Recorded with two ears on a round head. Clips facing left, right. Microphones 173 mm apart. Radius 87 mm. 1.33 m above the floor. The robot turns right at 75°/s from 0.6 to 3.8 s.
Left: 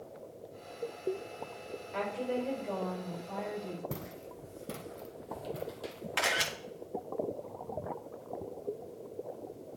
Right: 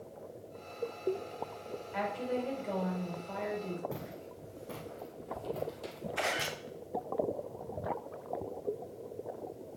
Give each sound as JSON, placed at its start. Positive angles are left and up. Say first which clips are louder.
{"t": 1.9, "sound": "a woman speaking", "louder": "left 1 dB", "azimuth_deg": 135, "distance_m": 5.0}
{"t": 3.9, "sound": "footsteps", "louder": "even", "side_deg": 45, "distance_m": 3.0}
{"t": 6.2, "sound": "a camera shutter", "louder": "even", "side_deg": 75, "distance_m": 1.6}